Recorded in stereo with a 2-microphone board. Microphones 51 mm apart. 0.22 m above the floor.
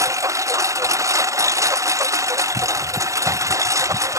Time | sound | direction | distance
0.0 | a lawn mower | 80° right | ?